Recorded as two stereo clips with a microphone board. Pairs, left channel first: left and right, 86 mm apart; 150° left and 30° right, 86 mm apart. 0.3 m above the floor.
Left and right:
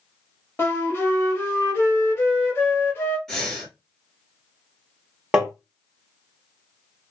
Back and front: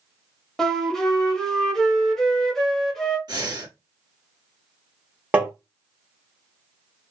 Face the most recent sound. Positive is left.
turn(degrees=-35)